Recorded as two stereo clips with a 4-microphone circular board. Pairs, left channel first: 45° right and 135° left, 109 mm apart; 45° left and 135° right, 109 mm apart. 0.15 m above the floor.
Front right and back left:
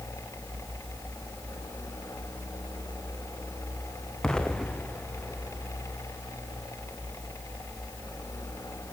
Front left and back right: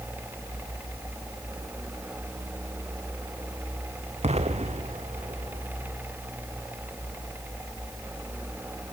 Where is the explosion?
130° right, 1.9 m.